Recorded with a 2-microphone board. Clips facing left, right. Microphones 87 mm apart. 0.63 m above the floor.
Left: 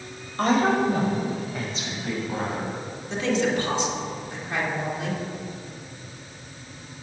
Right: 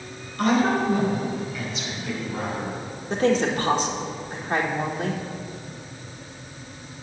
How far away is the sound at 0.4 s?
About 2.5 m.